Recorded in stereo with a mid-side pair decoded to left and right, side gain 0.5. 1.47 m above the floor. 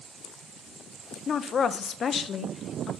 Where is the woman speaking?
45° left, 0.8 m.